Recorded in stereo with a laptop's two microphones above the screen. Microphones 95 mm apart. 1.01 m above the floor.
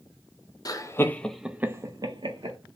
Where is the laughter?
40° left (ahead or behind), 0.6 m; by 2.6 s 60° right (ahead or behind), 0.8 m.